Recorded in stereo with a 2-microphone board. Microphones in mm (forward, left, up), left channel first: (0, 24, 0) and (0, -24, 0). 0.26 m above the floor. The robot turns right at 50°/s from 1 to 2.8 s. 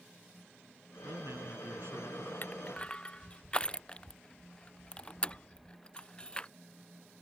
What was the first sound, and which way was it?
A man speaking, 105° right.